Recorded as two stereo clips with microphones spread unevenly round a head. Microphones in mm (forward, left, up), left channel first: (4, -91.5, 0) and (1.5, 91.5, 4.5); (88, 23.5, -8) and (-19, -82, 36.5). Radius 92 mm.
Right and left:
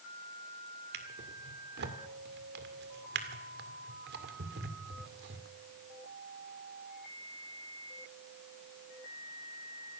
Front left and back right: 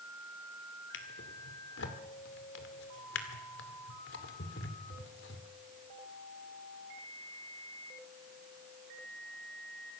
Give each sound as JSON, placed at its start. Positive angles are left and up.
{"t": 0.9, "sound": "a drawer", "azimuth_deg": 75, "distance_m": 2.0}